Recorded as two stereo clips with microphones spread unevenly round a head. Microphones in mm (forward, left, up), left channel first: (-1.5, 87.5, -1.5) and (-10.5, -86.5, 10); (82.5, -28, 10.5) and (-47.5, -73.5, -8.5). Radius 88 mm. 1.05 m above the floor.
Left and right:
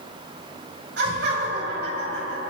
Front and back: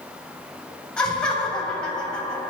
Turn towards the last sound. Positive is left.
turn(degrees=-65)